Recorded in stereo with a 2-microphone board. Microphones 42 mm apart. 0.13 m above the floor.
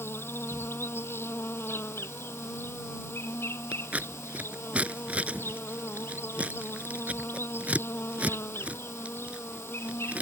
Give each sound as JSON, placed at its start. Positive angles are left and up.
{"t": 0.0, "sound": "an insect", "side_deg": 70}
{"t": 3.7, "sound": "scissors", "side_deg": -35}